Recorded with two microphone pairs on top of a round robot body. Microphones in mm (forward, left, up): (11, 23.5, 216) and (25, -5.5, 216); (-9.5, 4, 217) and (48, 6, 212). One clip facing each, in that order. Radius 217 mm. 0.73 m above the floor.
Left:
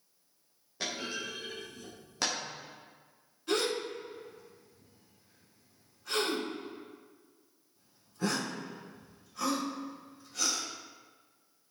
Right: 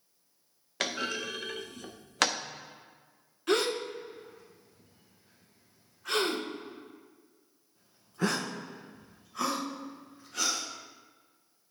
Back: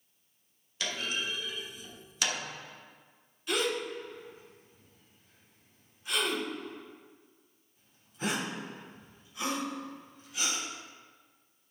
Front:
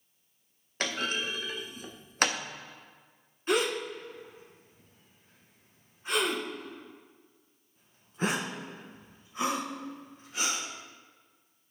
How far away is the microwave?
I don't hear a microwave.